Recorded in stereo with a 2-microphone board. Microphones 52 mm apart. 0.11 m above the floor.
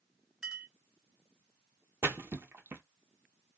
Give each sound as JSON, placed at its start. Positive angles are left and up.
{"t": 0.4, "sound": "a clink", "side_deg": -15, "distance_m": 0.7}
{"t": 2.0, "sound": "a splash", "side_deg": -50, "distance_m": 0.5}